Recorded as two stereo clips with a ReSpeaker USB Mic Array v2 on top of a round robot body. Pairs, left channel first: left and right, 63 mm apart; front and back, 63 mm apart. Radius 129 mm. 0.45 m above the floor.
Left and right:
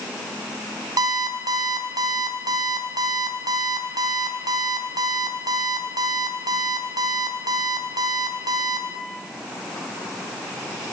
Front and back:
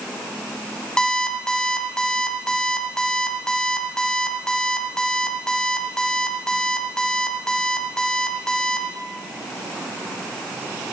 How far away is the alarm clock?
About 2 m.